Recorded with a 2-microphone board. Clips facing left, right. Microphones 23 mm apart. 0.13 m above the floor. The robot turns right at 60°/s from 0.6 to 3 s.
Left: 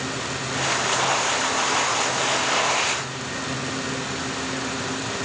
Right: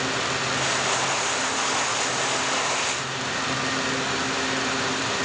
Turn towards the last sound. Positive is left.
No sound to turn to.